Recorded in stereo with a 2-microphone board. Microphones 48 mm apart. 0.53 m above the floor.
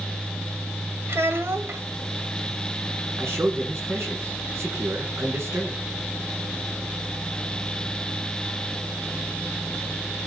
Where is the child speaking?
60° right (ahead or behind), 1.9 m.